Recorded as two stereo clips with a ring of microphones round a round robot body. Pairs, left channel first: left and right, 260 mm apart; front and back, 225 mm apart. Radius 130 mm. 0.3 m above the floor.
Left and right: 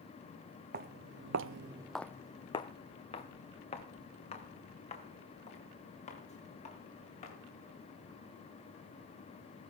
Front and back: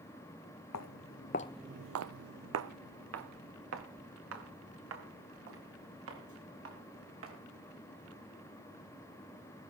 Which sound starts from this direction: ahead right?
Footsteps, at 0.7 s.